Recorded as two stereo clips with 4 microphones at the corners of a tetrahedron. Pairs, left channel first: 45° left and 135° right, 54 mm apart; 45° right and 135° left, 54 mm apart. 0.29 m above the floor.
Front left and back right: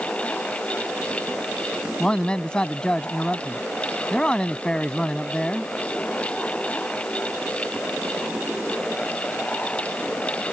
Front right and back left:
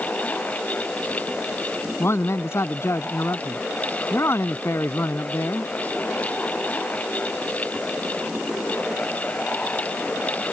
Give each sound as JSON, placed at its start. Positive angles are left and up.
{"t": 2.0, "sound": "a man speaking", "azimuth_deg": -25}